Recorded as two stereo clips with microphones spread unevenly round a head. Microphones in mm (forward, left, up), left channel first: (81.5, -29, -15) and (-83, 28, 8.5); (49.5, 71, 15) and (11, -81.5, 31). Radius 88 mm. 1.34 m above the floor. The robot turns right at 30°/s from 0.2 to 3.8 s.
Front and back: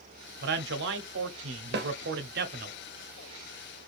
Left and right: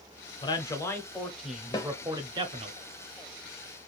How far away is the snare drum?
About 0.6 m.